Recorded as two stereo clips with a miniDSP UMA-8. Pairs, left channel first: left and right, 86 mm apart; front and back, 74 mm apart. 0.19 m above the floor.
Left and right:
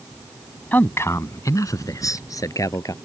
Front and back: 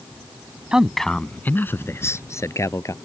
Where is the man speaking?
120° left; by 2.9 s 40° left.